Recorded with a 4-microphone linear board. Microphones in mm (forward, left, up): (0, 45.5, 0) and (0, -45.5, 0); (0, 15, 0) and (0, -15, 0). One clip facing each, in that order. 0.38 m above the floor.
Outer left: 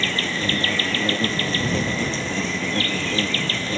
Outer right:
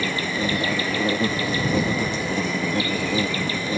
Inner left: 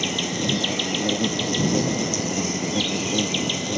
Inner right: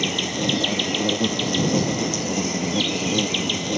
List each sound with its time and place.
0.0 s an insect: 10° right (ahead or behind)